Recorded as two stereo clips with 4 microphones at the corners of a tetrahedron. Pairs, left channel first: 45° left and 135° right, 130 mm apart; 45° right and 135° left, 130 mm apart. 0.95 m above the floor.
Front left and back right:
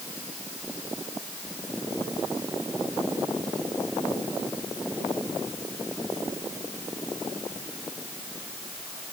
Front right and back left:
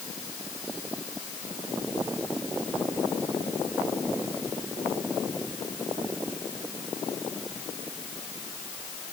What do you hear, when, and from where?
Only background noise.